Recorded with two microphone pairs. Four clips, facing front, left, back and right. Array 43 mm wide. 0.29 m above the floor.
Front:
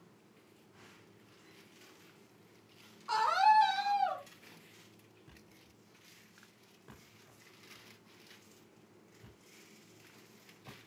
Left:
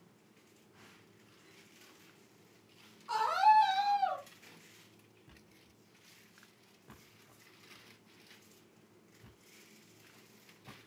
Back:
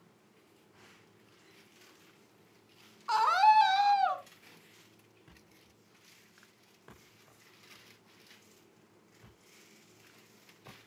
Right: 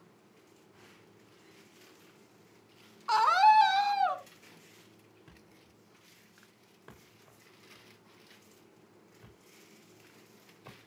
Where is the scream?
110° right, 3 m; by 4.2 s 140° right, 3 m.